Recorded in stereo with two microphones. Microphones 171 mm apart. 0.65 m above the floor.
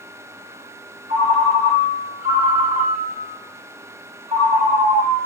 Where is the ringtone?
40° right (ahead or behind), 1.0 m.